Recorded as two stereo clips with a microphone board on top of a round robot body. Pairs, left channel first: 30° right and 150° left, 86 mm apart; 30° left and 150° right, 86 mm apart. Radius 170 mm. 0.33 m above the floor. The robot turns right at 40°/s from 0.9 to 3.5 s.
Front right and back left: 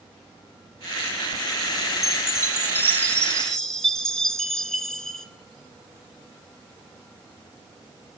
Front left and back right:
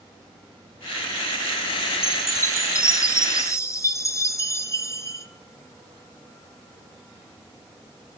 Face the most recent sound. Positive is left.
turn(degrees=50)